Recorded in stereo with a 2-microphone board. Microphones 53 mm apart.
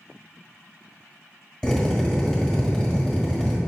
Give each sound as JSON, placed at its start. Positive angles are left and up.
{"t": 1.6, "sound": "a drill", "side_deg": 10, "distance_m": 1.3}